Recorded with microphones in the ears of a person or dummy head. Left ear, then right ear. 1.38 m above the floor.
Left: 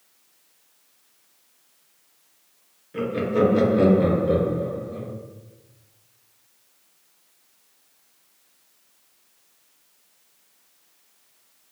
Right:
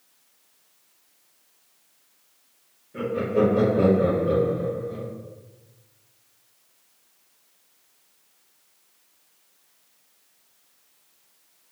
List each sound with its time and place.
2.9 s laughter: 40° left (ahead or behind), 1.1 m; by 5.1 s 50° right (ahead or behind), 0.6 m